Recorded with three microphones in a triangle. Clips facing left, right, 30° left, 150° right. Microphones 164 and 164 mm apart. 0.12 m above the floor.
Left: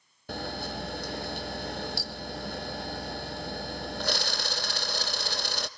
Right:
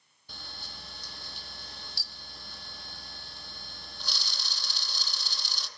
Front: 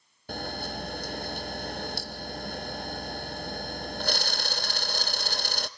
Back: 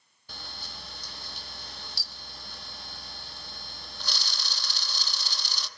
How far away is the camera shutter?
About 0.7 m.